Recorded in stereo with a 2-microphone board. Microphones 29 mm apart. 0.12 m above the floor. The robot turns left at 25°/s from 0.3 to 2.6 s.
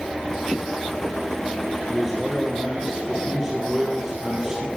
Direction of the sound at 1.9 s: Centre (ahead or behind).